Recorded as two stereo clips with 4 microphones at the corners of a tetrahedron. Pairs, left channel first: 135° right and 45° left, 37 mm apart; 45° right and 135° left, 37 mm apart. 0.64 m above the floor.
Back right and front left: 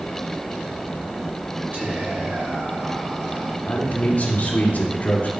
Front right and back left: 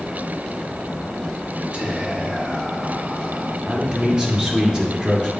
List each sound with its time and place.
1.7 s whispering: 75° left, 3 m
3.7 s a man speaking: 165° right, 2.0 m